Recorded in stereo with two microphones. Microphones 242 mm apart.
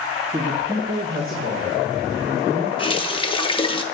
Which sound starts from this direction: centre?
A man speaking, at 0.3 s.